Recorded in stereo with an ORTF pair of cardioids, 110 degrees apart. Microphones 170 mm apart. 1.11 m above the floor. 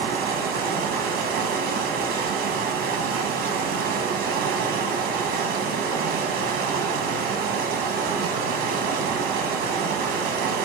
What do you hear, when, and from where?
0.0 s running water: 55° right, 0.8 m